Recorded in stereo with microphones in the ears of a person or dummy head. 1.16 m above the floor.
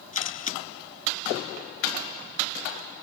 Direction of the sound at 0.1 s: 35° left (ahead or behind).